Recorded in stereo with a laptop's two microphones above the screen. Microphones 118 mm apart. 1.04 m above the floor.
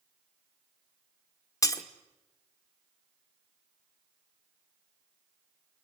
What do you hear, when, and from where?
1.6 s breaking glass: 30° left (ahead or behind), 1.7 m